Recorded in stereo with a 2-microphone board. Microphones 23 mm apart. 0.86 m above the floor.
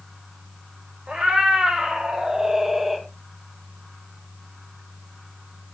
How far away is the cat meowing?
About 3.5 m.